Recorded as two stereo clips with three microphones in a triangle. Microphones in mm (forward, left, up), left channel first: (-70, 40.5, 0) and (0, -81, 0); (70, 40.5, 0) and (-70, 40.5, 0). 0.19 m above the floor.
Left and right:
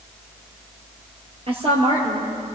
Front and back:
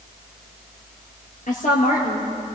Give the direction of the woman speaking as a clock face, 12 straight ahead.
1 o'clock.